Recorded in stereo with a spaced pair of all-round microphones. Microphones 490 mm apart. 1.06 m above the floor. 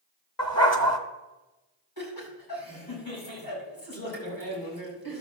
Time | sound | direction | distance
0.4 | a dog barking | 30° left (ahead or behind) | 1.2 m
2.0 | laughter | 45° left (ahead or behind) | 5.5 m